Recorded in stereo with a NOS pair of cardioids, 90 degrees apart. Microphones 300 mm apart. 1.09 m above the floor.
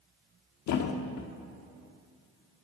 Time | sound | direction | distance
0.7 | a thud | 70° left | 1.3 m